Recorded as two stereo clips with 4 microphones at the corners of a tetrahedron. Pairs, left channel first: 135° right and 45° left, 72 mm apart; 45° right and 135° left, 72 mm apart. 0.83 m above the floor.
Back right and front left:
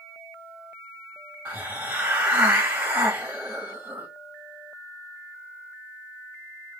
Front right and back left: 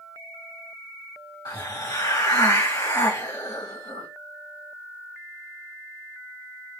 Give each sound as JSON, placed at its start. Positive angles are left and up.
{"t": 1.4, "sound": "a hiss", "azimuth_deg": -20, "distance_m": 1.8}